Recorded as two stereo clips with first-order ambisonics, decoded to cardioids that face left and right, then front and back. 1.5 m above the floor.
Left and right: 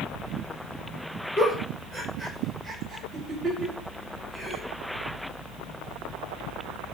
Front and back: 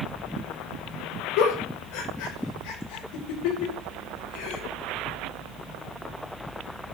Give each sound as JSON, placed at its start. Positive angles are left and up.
{"t": 1.4, "sound": "a giggle", "azimuth_deg": 0, "distance_m": 5.5}